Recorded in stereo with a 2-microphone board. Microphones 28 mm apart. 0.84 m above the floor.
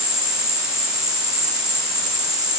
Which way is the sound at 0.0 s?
10° right (ahead or behind).